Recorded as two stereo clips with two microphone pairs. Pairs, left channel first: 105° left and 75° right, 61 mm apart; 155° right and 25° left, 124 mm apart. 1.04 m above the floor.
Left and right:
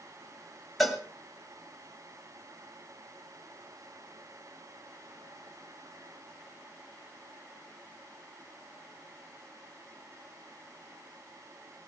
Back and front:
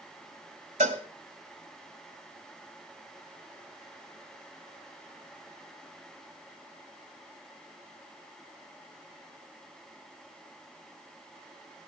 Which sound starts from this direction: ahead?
A cowbell, at 0.8 s.